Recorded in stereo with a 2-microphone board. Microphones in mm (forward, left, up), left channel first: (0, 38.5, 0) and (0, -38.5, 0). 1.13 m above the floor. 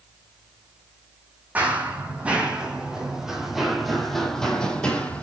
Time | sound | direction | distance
1.6 | running footsteps | 20° right (ahead or behind) | 3 m